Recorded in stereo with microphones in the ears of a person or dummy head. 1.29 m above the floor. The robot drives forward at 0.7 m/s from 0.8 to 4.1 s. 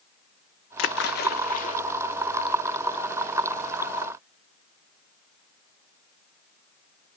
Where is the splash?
70° left (ahead or behind), 0.9 m; by 1.8 s 40° left (ahead or behind), 1.3 m.